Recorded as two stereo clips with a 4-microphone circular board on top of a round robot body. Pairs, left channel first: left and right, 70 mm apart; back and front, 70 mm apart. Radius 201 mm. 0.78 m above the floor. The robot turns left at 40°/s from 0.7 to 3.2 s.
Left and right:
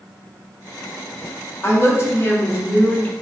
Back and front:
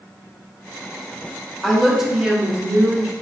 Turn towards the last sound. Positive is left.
turn(degrees=35)